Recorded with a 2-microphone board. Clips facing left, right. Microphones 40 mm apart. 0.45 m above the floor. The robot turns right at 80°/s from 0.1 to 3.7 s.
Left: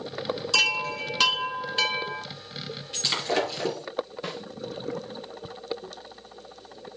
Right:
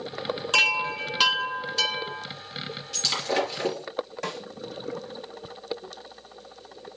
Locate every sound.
0.5 s a chime: 60° right, 1.1 m; by 2.3 s 75° left, 1.1 m
2.9 s breaking glass: 25° left (ahead or behind), 3.5 m; by 3.9 s 35° right (ahead or behind), 3.5 m
4.2 s a snare drum: 75° right (ahead or behind), 4 m